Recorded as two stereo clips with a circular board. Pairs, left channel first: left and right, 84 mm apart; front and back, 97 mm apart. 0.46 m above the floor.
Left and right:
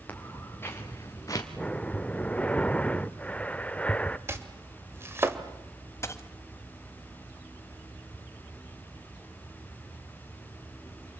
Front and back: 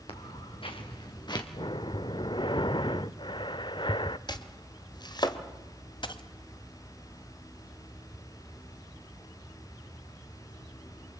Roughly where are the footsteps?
Ahead.